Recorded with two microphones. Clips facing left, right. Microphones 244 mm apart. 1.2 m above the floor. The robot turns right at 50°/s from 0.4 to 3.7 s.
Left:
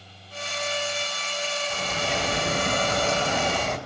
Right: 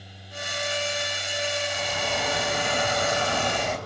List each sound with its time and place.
1.7 s a bird: 85° left, 5 m; by 3.8 s 175° right, 5 m